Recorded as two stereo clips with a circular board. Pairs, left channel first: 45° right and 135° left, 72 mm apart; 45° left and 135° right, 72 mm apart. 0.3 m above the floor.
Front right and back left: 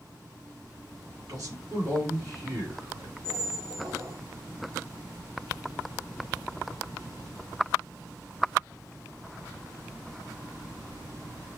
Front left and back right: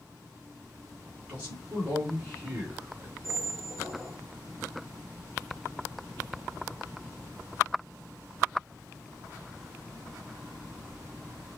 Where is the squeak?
Straight behind, 3.5 m.